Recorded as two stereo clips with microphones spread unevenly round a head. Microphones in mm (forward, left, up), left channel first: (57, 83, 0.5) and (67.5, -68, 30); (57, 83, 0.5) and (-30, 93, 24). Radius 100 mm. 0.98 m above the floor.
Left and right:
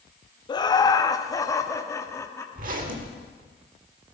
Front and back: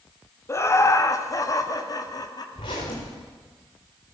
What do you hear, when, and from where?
0.5 s laughter: 40° left, 1.6 m; by 2.5 s 25° left, 2.5 m
2.5 s a zipper: 65° right, 1.8 m